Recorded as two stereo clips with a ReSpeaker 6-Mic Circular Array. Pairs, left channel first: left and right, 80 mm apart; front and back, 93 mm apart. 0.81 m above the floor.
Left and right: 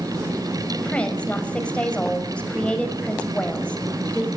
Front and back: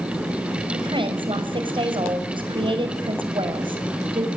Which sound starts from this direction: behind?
A woman speaking, at 0.7 s.